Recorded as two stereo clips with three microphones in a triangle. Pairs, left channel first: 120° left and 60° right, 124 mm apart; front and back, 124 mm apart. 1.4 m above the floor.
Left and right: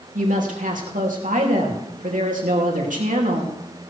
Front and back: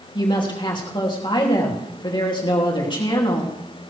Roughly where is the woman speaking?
Ahead right.